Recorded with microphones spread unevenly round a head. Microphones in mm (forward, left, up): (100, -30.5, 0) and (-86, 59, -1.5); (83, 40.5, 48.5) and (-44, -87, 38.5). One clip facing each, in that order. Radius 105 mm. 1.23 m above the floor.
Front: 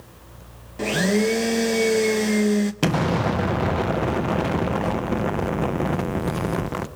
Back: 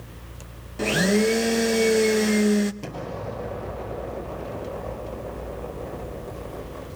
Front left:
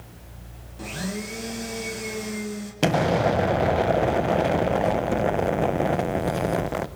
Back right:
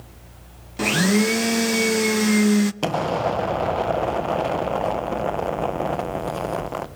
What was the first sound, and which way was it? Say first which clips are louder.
A blender: even, back right 13 dB; 120° right.